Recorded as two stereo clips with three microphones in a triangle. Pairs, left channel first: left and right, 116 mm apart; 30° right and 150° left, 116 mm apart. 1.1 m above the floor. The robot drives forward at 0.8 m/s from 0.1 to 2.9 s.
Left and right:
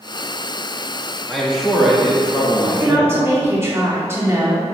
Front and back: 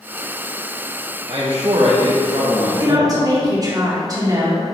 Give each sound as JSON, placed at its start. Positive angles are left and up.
{"t": 1.3, "sound": "a man speaking", "azimuth_deg": 180, "distance_m": 2.0}
{"t": 2.8, "sound": "a woman speaking", "azimuth_deg": -155, "distance_m": 2.5}